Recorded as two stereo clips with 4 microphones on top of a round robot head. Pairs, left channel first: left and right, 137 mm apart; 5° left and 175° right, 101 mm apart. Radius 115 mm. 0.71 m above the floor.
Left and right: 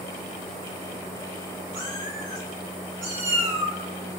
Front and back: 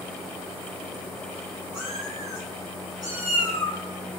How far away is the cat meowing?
About 1.1 m.